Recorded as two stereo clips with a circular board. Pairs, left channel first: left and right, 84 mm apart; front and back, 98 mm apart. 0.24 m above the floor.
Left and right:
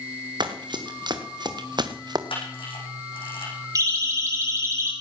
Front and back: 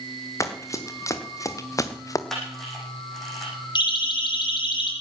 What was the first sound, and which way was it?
Running footsteps, 60° right.